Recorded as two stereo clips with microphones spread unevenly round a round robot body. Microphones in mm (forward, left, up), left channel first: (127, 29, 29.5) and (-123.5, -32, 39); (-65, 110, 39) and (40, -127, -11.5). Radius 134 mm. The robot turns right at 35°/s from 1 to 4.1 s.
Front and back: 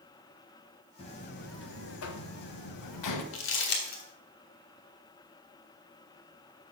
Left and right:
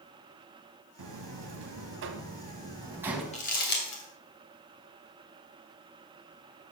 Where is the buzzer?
55° right, 1.3 m; by 3.2 s 20° left, 1.3 m.